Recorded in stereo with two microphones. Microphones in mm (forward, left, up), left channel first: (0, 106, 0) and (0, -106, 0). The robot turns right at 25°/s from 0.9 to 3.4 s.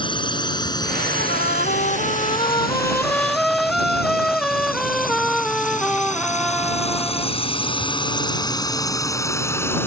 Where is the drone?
25° left (ahead or behind); by 9.9 s 10° left (ahead or behind).